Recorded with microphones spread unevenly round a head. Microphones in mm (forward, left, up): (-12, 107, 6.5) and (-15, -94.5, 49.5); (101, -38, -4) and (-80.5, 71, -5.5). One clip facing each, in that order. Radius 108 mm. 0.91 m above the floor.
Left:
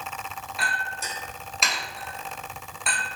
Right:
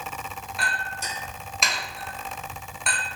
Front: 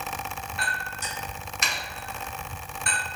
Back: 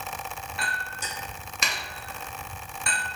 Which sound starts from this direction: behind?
A clink, at 0.6 s.